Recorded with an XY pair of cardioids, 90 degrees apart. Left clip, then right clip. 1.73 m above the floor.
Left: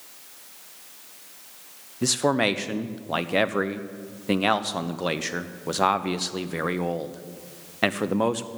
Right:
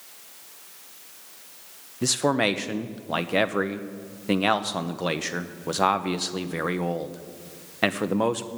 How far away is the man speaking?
About 0.9 m.